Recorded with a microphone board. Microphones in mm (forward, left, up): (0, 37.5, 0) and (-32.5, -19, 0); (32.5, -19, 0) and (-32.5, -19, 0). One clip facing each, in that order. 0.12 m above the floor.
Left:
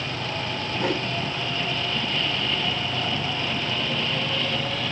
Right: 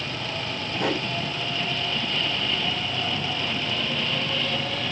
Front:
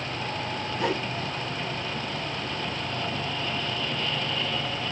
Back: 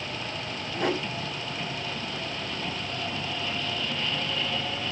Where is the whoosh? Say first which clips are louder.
Even, back 1 dB; 140° right, 6.5 m.